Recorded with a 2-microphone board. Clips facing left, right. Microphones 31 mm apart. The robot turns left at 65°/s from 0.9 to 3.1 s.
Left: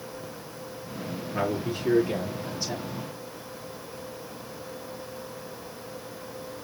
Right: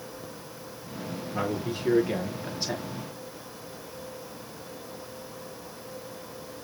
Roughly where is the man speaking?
Ahead left.